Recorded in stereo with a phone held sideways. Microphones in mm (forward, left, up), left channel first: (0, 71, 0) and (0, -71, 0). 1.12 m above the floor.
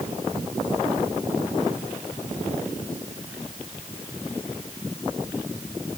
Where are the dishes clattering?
I don't hear dishes clattering.